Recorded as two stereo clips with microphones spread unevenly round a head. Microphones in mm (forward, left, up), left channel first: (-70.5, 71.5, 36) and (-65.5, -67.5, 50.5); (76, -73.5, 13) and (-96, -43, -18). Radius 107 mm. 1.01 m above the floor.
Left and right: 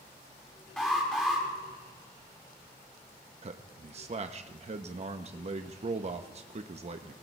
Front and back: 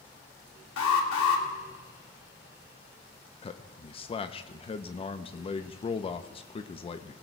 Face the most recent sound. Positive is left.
turn(degrees=-70)